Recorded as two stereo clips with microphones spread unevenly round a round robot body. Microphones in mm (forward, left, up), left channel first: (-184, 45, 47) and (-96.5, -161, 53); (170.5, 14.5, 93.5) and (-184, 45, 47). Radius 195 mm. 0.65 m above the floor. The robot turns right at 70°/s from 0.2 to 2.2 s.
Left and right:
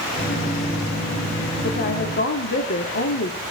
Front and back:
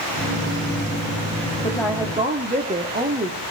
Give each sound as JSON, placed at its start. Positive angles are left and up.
{"t": 1.6, "sound": "a woman speaking", "azimuth_deg": 75, "distance_m": 1.6}